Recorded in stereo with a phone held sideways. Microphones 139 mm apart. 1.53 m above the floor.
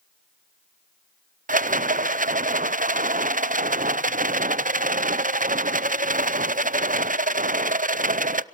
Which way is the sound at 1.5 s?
70° right (ahead or behind).